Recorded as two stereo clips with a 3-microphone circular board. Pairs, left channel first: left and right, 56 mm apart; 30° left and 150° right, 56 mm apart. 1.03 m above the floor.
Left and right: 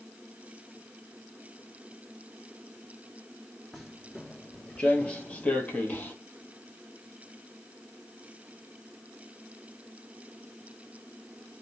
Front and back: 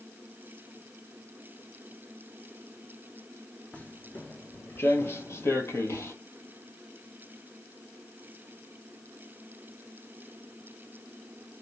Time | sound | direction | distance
3.7 | footsteps | straight ahead | 1.0 m